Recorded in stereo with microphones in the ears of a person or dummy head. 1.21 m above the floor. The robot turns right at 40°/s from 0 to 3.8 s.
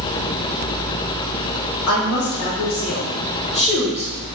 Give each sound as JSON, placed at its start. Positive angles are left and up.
{"t": 1.9, "sound": "a woman speaking", "azimuth_deg": 115, "distance_m": 1.2}